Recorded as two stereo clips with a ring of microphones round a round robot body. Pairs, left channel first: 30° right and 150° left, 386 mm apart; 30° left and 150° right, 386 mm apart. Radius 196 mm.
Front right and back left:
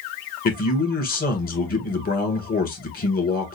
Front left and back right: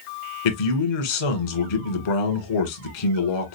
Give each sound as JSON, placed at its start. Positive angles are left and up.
{"t": 0.5, "sound": "a man speaking", "azimuth_deg": 40, "distance_m": 1.7}